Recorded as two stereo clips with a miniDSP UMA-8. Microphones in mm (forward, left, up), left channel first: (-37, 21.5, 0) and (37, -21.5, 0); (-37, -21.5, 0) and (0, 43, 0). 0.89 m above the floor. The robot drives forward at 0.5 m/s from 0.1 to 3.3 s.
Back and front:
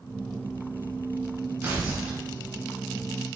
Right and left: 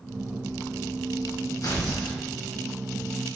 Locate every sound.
1.6 s tearing paper: 95° right, 1.9 m; by 2.2 s 105° right, 1.9 m